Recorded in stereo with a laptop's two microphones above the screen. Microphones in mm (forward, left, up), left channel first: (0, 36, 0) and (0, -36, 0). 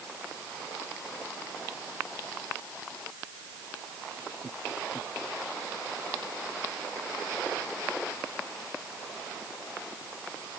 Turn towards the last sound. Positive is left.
No sound to turn to.